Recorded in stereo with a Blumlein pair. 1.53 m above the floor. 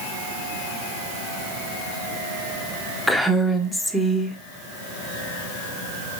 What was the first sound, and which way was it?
A woman speaking, 5° left.